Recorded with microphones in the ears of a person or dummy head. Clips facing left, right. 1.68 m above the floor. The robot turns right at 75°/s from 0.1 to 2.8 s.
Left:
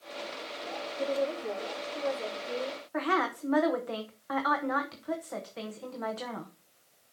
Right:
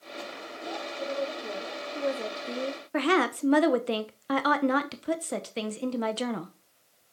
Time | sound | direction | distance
1.0 | a woman speaking | 140° left | 2.5 m
2.9 | a woman speaking | 35° right (ahead or behind) | 0.9 m